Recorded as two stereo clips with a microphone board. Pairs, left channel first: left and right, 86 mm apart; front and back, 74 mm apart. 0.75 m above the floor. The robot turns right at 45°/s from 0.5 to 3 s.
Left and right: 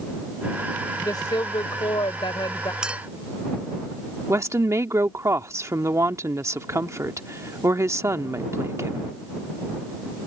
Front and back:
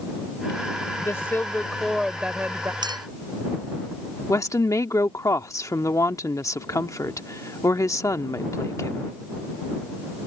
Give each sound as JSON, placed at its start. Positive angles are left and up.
{"t": 1.0, "sound": "a woman speaking", "azimuth_deg": 45}
{"t": 2.8, "sound": "a clink", "azimuth_deg": -170}
{"t": 4.3, "sound": "a woman speaking", "azimuth_deg": -40}